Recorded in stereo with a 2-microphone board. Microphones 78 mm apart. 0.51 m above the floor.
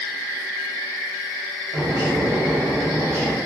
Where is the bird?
35° right (ahead or behind), 1.6 m.